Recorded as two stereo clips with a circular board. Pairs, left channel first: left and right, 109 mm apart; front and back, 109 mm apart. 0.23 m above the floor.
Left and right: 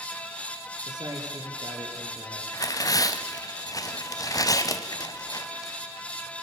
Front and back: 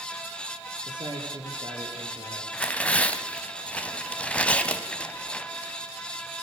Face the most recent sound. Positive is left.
turn(degrees=70)